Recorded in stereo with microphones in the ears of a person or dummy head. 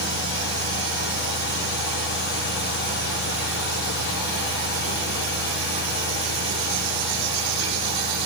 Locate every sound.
0.0 s a fan: 65° left (ahead or behind), 6 m